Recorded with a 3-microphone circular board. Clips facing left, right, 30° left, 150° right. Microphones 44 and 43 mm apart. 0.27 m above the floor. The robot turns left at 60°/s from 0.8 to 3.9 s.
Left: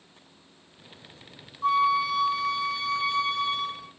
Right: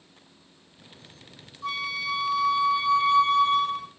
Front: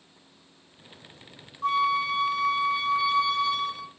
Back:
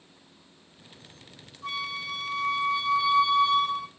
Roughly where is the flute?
Ahead left.